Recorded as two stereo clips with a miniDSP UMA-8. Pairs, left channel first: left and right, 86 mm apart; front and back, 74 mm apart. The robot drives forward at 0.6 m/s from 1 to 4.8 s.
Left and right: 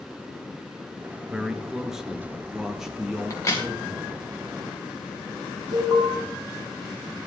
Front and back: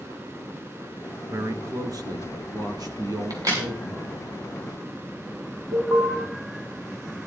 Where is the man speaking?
170° right, 1.5 m; by 4.3 s 175° right, 3 m.